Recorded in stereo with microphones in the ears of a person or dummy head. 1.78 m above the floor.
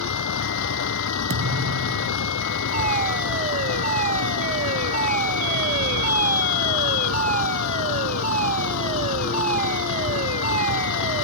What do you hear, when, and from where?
0.0 s a vehicle: 70° left (ahead or behind)
1.3 s a thud: 60° right (ahead or behind)
2.7 s a fire alarm: 40° right (ahead or behind)